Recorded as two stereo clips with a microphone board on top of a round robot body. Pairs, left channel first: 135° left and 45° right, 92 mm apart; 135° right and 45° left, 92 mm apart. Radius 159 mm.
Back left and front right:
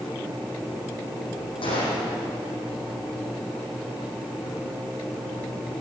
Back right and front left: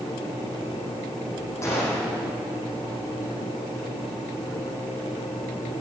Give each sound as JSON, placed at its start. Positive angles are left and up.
{"t": 1.6, "sound": "a gunshot", "azimuth_deg": 165, "distance_m": 7.0}